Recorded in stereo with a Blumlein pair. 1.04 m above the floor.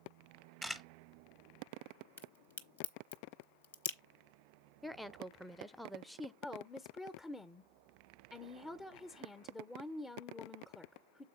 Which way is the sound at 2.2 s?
65° left.